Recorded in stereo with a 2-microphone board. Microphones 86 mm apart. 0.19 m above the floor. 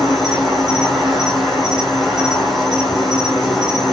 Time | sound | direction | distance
0.0 | an insect | centre (ahead or behind) | 2 m